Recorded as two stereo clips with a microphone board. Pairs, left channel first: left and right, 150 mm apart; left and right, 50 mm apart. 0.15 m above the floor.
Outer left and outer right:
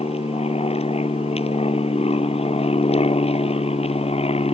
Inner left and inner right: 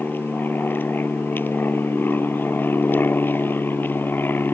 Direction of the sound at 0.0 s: 40° left (ahead or behind).